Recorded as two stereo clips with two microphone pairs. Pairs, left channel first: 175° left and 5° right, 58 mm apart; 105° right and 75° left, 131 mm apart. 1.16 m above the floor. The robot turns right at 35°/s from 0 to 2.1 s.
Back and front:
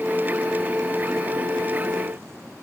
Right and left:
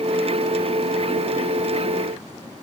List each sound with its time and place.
Only background noise.